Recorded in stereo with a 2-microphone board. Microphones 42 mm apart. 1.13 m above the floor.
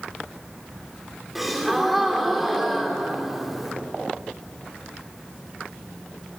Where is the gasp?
5° right (ahead or behind), 3 m.